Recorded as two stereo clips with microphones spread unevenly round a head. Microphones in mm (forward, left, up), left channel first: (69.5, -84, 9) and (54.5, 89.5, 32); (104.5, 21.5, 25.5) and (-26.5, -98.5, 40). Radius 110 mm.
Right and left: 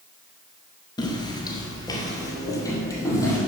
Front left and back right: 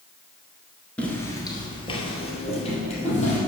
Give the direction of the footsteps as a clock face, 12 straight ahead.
1 o'clock.